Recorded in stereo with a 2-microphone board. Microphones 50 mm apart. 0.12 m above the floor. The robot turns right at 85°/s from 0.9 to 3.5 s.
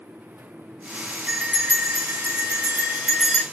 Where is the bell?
165° right, 2 m; by 3.4 s 20° left, 2 m.